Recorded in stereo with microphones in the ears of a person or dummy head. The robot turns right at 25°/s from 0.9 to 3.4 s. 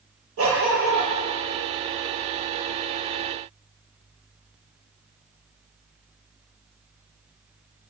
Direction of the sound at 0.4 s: 70° right (ahead or behind).